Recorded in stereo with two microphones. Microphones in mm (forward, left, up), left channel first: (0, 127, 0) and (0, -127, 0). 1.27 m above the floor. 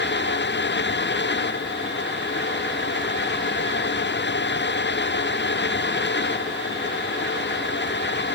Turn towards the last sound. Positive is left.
No sound to turn to.